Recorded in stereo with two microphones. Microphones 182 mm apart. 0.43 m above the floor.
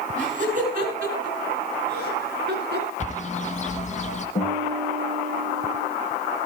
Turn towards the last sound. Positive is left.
turn(degrees=40)  # may be behind; listen again after turning